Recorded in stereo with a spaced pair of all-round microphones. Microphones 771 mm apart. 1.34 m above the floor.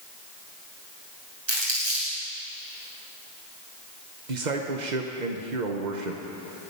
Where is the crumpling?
60° right (ahead or behind), 6 m.